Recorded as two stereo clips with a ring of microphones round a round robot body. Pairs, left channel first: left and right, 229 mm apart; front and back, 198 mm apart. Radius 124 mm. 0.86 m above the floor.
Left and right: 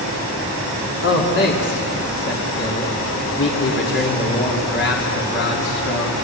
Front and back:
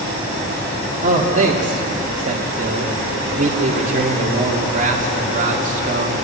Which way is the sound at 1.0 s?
130° left.